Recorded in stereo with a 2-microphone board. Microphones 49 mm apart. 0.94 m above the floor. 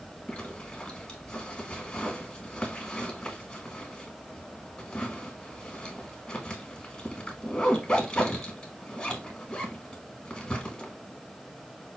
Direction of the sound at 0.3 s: 25° left (ahead or behind).